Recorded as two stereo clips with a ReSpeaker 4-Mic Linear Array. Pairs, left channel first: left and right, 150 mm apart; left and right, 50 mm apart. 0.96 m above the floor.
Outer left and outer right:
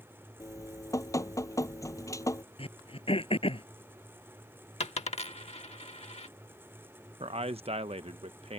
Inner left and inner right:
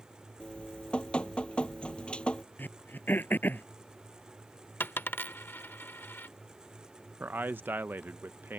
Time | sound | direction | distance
0.4 | dripping | 20° left (ahead or behind) | ?
2.6 | throat clearing | 40° left (ahead or behind) | ?
4.8 | a dropped coin | 45° left (ahead or behind) | ?
7.2 | a man speaking | 40° right (ahead or behind) | ?